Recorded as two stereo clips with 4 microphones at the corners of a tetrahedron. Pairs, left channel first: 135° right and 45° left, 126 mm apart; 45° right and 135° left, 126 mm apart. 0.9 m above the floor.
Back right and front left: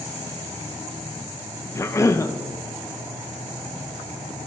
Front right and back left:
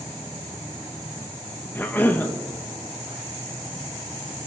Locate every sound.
1.8 s a cough: 95° right, 0.6 m